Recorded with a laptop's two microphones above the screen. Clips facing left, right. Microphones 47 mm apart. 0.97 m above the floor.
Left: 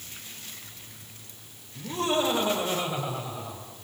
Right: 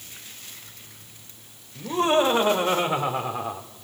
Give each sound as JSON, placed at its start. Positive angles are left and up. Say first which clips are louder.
{"t": 1.8, "sound": "laughter", "louder": "right 6 dB", "side_deg": -35, "distance_m": 4.5}